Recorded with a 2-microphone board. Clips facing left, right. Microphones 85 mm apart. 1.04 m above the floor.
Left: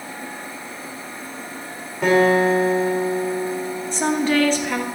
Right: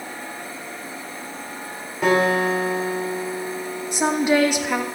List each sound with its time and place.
2.0 s a guitar: centre (ahead or behind), 4.5 m
3.9 s a woman speaking: 15° right (ahead or behind), 1.5 m